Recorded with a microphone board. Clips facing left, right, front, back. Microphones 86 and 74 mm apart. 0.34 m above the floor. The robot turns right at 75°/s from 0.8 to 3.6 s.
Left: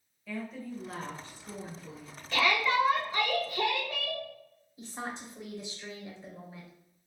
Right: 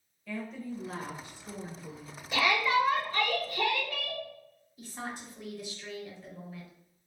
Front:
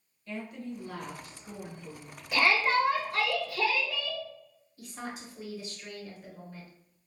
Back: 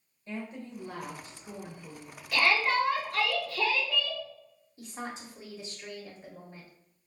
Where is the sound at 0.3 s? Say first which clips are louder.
Right 1 dB, front 1 dB; 175° left, 0.9 m; by 2.2 s 80° right, 0.9 m.